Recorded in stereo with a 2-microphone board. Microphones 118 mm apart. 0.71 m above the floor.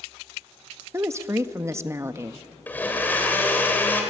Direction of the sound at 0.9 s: 20° right (ahead or behind).